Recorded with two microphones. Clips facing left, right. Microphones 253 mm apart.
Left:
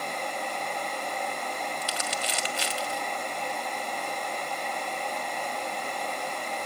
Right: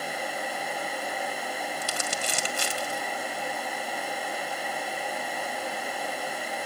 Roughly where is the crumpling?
Right.